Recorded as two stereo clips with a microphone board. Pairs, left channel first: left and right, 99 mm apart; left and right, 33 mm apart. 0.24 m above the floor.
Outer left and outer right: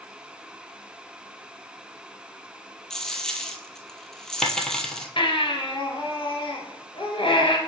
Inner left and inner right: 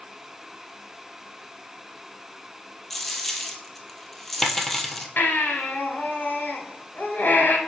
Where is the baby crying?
65° left (ahead or behind), 2 m.